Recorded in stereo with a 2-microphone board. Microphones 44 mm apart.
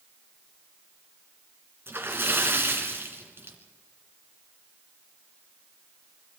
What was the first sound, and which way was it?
A splash, 55° right (ahead or behind).